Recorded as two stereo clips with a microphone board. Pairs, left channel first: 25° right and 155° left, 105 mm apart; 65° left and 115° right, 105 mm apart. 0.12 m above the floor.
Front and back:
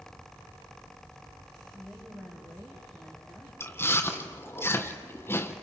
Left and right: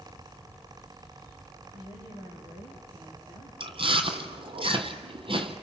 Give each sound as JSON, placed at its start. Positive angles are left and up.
{"t": 1.7, "sound": "a woman speaking", "azimuth_deg": -125, "distance_m": 5.5}
{"t": 3.6, "sound": "chewing", "azimuth_deg": -90, "distance_m": 1.5}